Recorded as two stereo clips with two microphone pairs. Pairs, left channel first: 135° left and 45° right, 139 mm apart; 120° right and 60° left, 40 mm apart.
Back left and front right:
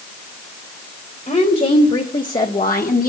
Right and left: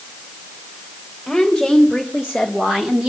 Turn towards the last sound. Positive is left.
turn(degrees=125)